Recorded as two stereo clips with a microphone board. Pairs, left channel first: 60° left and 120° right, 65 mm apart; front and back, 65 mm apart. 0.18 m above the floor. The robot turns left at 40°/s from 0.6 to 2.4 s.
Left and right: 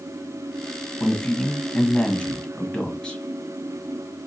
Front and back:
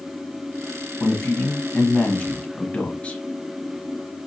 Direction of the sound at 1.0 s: 70° left.